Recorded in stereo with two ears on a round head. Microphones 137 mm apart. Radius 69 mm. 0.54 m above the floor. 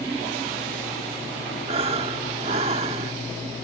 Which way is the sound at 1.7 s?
40° right (ahead or behind).